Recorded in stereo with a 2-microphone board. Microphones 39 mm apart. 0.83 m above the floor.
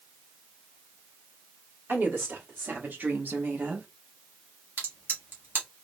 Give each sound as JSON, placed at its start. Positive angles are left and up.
{"t": 1.9, "sound": "a woman speaking", "side_deg": -70, "distance_m": 1.9}
{"t": 4.8, "sound": "a crack", "side_deg": -60, "distance_m": 1.3}